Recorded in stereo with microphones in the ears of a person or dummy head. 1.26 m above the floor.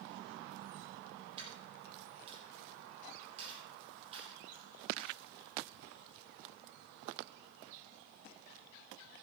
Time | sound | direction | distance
1.4 | a dropped coin | 35° right (ahead or behind) | 7.5 m